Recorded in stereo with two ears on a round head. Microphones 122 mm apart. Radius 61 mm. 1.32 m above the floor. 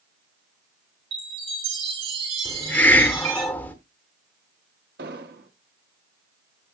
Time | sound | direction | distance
1.1 | a chime | 45° right (ahead or behind) | 4.5 m
2.5 | a hiss | 15° left (ahead or behind) | 1.0 m
5.0 | an explosion | 80° right | 1.1 m